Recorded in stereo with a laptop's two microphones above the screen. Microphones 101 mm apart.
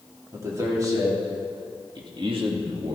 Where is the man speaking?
30° right (ahead or behind), 2.5 m; by 2.9 s 65° right (ahead or behind), 2.0 m.